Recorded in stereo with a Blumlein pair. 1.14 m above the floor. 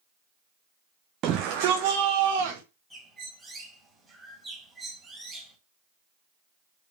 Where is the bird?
5° right, 2.5 m.